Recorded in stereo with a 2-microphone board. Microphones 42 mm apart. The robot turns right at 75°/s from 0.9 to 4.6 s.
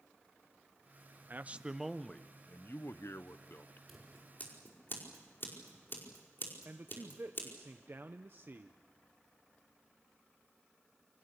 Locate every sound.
1.3 s a man speaking: 45° right, 1.0 m; by 3.8 s 140° left, 1.0 m
3.9 s scissors: centre (ahead or behind), 5 m; by 7.5 s 50° left (ahead or behind), 5 m
6.7 s a man speaking: 50° right (ahead or behind), 0.9 m